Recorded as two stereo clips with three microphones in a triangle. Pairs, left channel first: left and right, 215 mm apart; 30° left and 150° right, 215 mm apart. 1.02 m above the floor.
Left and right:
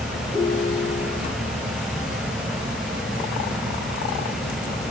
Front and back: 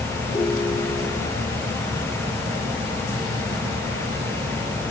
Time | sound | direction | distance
0.3 | a ringtone | 35° left | 2.5 m